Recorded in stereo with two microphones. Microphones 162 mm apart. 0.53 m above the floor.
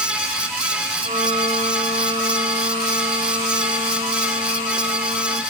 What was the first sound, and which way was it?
A violin, 55° right (ahead or behind).